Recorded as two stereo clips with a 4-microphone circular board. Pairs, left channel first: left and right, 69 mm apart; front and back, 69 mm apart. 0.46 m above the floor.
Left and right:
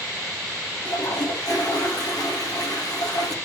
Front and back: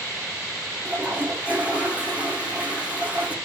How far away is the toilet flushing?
About 3 m.